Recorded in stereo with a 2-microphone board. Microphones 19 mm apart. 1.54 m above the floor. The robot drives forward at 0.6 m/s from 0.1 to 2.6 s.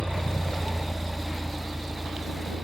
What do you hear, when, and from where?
0.0 s a vehicle: 70° left (ahead or behind); by 2.6 s 10° left (ahead or behind)